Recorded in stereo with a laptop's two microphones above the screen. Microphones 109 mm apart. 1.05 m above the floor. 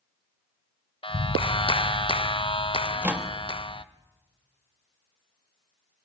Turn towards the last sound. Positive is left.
turn(degrees=-15)  # may be behind; listen again after turning